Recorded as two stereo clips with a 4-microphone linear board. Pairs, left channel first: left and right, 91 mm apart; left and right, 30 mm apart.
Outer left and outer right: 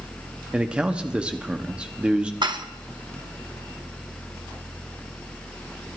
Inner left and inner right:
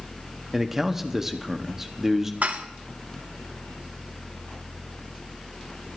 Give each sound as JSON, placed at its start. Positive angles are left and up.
{"t": 0.5, "sound": "a man speaking", "side_deg": -15, "distance_m": 1.0}
{"t": 2.4, "sound": "dishes clattering", "side_deg": -60, "distance_m": 0.9}